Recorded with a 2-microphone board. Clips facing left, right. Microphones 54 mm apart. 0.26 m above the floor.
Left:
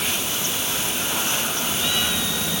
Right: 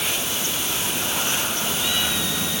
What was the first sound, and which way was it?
Only background noise.